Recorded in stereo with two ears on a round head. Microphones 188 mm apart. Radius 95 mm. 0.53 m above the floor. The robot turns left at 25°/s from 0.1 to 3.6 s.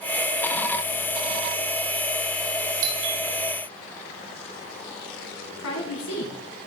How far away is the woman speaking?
About 4 m.